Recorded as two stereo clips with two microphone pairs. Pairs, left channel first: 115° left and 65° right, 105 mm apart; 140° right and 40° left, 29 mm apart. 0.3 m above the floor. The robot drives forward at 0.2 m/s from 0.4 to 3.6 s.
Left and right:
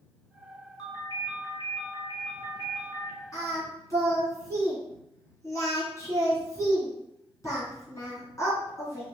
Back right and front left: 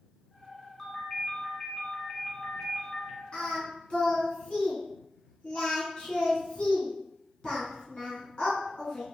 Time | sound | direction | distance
0.8 | a ringtone | 150° left | 1.7 m
3.3 | singing | 170° left | 1.9 m